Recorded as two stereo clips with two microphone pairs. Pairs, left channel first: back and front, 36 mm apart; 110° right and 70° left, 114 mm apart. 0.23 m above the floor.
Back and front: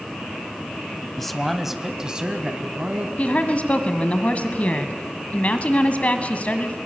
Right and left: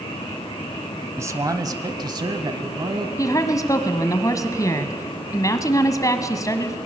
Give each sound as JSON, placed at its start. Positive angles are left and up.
{"t": 1.2, "sound": "a man speaking", "azimuth_deg": 105, "distance_m": 1.1}
{"t": 3.2, "sound": "a woman speaking", "azimuth_deg": -150, "distance_m": 1.6}